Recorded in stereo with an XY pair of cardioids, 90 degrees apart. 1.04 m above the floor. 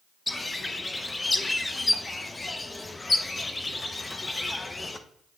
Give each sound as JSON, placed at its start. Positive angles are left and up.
{"t": 0.3, "sound": "a bird", "azimuth_deg": 20, "distance_m": 0.7}